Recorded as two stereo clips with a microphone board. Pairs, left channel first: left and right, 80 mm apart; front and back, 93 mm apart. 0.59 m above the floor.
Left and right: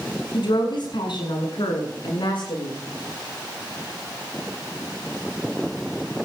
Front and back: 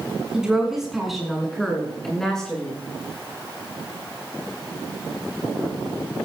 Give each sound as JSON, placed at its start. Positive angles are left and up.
{"t": 0.3, "sound": "a woman speaking", "azimuth_deg": 100, "distance_m": 7.0}